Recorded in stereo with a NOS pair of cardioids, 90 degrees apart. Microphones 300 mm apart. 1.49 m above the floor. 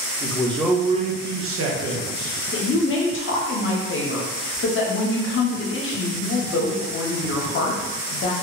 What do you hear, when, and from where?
0.2 s a man speaking: 15° left, 0.6 m; by 2.3 s 70° right, 1.0 m
2.5 s a woman speaking: 45° left, 0.7 m